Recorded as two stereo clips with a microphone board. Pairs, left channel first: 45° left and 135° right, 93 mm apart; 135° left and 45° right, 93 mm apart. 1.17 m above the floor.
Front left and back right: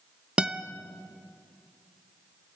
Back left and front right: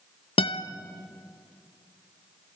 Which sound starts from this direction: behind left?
A guitar, at 0.4 s.